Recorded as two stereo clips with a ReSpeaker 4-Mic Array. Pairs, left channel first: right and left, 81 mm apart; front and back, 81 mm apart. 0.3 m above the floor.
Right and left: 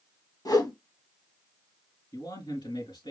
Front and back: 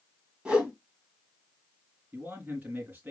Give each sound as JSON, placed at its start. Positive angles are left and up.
{"t": 0.5, "sound": "a whoosh", "azimuth_deg": -105, "distance_m": 2.0}
{"t": 2.1, "sound": "a man speaking", "azimuth_deg": -115, "distance_m": 4.0}